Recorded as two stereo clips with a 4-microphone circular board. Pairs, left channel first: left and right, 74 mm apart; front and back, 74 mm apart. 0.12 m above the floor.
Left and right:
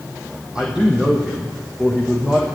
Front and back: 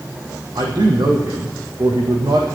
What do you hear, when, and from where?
0.6 s a man speaking: 170° right, 4.5 m